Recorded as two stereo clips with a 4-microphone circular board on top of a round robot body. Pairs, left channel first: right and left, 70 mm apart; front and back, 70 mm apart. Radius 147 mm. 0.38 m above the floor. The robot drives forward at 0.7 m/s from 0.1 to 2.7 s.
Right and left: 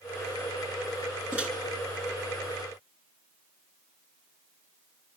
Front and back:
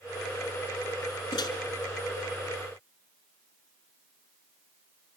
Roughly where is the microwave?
Ahead.